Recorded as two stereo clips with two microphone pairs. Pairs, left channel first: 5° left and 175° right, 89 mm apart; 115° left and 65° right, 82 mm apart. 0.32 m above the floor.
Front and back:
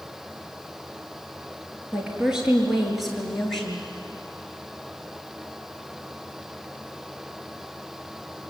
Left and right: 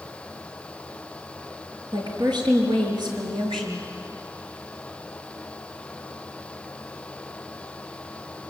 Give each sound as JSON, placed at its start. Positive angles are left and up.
{"t": 1.9, "sound": "a woman speaking", "azimuth_deg": -95, "distance_m": 5.0}